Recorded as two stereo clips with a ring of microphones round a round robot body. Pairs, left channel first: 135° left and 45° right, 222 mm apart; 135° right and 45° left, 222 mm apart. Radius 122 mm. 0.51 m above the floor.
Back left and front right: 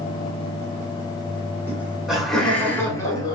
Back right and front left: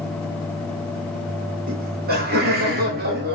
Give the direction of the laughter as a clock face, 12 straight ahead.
11 o'clock.